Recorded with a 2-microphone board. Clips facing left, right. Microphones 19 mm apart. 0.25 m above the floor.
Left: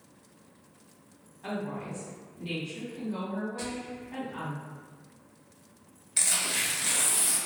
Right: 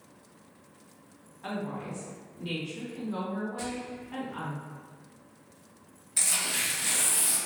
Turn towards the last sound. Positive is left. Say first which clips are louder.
# left 1 dB
turn(degrees=20)  # may be behind; listen again after turning